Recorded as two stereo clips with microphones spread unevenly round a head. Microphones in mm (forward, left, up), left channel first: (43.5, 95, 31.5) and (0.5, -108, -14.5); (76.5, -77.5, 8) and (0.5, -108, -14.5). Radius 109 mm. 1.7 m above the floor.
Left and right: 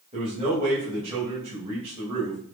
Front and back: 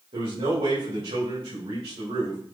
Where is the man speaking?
165° right, 4 m.